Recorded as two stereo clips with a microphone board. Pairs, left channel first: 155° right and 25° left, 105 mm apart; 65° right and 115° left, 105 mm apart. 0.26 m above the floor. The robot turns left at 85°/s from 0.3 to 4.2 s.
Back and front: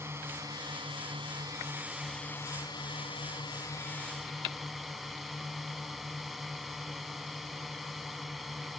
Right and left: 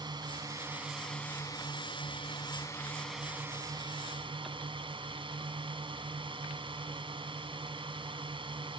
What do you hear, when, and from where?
0.0 s a drone: 80° left; by 8.8 s 110° left